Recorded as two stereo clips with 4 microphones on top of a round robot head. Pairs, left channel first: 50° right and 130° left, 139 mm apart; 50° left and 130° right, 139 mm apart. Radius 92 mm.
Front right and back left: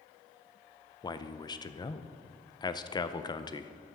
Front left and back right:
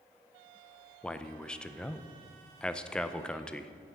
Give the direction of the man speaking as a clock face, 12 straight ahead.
1 o'clock.